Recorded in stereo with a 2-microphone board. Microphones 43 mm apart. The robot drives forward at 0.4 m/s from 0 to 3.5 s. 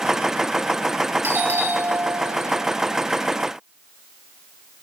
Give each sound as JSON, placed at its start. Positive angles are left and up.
{"t": 1.2, "sound": "a doorbell", "side_deg": -65, "distance_m": 2.5}